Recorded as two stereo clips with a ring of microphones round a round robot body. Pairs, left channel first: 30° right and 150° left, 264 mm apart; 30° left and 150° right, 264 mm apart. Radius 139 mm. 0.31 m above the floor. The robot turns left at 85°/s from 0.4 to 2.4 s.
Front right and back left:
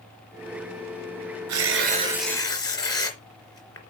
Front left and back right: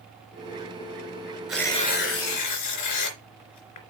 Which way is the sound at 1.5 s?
125° left.